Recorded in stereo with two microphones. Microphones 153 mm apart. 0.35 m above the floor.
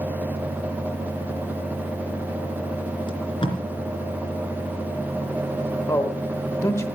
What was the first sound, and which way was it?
Tape being pulled, 35° left (ahead or behind).